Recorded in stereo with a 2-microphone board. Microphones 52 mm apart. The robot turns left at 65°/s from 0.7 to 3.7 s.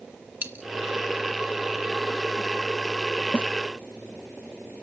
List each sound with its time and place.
0.4 s a dropped coin: 40° right (ahead or behind), 1.8 m
3.3 s a snare drum: 35° left (ahead or behind), 0.8 m; by 3.5 s 30° left (ahead or behind), 0.8 m